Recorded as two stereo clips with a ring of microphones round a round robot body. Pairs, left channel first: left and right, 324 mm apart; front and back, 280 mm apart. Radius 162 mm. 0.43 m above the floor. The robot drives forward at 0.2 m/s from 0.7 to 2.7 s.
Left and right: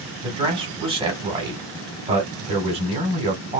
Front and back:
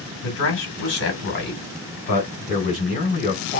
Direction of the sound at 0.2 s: 25° right.